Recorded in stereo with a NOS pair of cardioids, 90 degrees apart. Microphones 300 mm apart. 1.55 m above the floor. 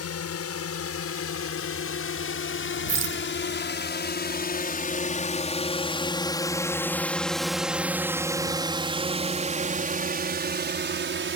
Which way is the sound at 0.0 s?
55° left.